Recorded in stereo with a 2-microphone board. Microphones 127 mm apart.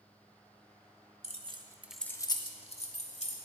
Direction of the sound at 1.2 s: 55° right (ahead or behind).